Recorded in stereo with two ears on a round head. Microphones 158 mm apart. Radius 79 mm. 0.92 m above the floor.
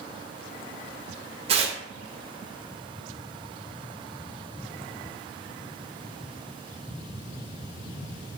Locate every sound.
1.5 s tearing paper: 35° right (ahead or behind), 0.5 m